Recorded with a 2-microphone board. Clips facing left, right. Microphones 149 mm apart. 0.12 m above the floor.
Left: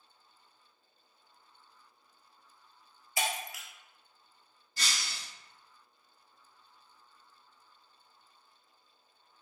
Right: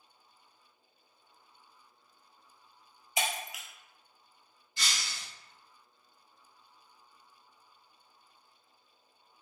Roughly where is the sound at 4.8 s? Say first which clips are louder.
Even; left.